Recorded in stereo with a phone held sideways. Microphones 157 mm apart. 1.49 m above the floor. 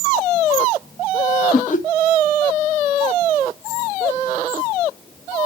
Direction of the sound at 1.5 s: 55° left (ahead or behind).